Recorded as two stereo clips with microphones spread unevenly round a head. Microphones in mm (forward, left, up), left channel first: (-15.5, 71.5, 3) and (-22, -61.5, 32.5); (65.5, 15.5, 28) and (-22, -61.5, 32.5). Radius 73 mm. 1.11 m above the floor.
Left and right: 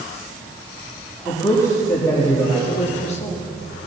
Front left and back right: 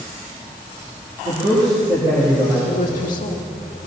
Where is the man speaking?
155° left, 2.5 m.